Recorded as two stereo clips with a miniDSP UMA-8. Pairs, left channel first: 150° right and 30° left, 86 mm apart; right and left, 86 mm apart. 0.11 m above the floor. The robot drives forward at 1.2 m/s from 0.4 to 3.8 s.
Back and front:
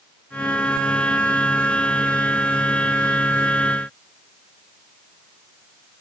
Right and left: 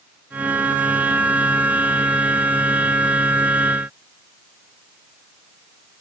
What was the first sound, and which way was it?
Only background noise.